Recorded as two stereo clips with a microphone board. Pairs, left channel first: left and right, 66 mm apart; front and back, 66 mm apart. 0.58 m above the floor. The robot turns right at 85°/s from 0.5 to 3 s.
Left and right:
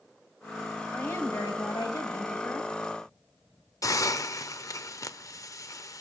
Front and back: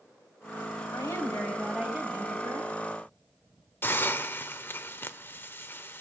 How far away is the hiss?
About 0.7 m.